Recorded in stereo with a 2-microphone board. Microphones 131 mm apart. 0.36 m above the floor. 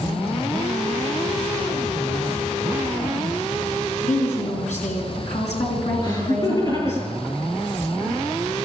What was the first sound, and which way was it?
A woman speaking, 65° left (ahead or behind).